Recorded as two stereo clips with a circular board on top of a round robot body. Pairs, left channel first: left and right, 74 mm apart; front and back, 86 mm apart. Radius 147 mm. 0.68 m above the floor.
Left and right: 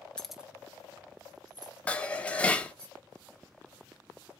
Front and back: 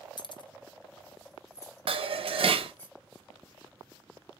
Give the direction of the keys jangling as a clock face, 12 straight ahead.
12 o'clock.